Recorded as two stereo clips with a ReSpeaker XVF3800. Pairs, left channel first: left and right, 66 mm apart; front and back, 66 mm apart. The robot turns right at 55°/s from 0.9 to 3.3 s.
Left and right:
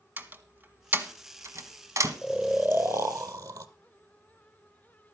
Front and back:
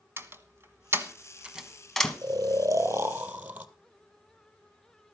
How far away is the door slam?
About 1.3 m.